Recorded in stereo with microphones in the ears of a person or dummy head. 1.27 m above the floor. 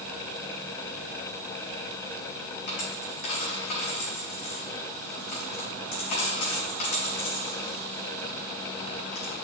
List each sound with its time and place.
2.7 s a dropped coin: 55° left (ahead or behind), 2.5 m